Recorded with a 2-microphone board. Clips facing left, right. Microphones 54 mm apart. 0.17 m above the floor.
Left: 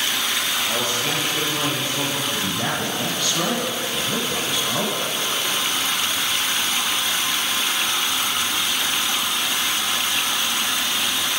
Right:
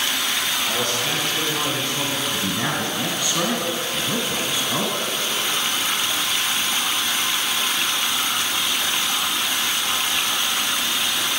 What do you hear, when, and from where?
0.6 s a man speaking: 20° left (ahead or behind), 3.5 m
2.3 s a man speaking: 15° right (ahead or behind), 1.4 m